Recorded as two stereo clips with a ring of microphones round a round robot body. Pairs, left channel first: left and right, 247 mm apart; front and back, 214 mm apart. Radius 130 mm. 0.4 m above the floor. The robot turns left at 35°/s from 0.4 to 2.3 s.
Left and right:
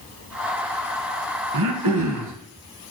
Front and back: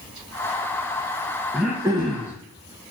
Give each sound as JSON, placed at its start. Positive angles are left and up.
{"t": 1.5, "sound": "throat clearing", "azimuth_deg": -90, "distance_m": 0.8}